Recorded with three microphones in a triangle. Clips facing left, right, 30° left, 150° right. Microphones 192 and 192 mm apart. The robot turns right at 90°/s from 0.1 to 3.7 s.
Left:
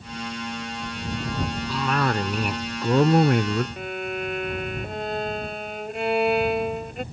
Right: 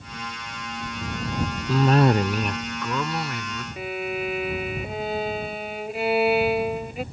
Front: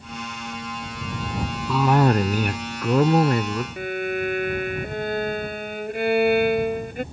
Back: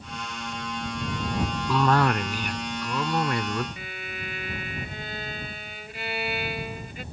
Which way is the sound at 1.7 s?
65° right.